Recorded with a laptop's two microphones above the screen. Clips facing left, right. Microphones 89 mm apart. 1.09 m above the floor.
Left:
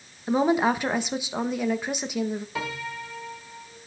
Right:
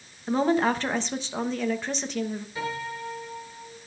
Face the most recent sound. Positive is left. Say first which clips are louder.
# right 1 dB
turn(degrees=85)